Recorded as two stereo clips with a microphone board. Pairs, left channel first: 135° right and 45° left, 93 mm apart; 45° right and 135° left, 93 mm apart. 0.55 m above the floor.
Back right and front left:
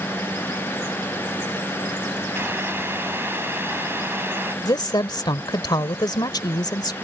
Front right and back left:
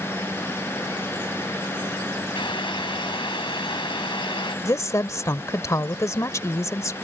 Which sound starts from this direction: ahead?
Boiling, at 2.4 s.